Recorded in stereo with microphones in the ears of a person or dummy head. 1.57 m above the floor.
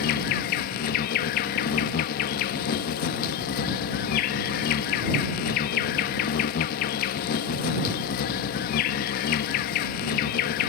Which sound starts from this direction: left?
An insect, at 0.0 s.